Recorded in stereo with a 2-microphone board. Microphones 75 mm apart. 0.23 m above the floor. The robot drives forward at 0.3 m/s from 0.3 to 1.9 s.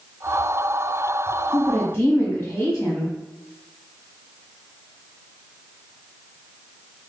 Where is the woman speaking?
25° left (ahead or behind), 1.5 m.